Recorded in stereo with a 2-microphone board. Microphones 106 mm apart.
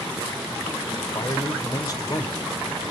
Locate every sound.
1.0 s a man speaking: 35° left (ahead or behind), 1.8 m